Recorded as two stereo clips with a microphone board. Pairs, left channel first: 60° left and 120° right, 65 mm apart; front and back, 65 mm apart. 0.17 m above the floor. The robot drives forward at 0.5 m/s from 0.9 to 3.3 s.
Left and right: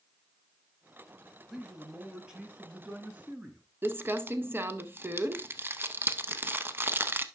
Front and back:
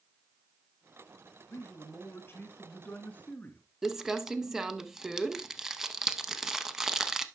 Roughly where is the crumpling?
Right.